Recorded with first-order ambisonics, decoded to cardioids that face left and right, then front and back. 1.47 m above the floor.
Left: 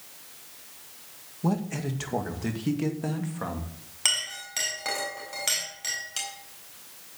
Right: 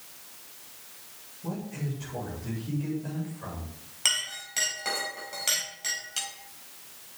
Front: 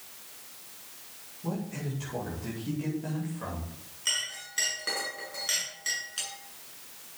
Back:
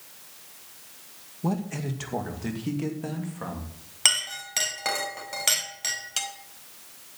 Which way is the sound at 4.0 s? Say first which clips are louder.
Left 1 dB, back 7 dB; 175° left.